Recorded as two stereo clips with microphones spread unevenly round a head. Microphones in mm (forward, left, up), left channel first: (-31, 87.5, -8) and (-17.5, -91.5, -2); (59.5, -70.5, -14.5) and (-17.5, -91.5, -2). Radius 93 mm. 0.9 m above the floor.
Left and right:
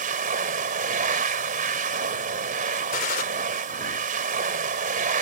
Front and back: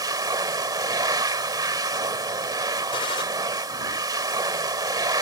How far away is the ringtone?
No ringtone in this recording.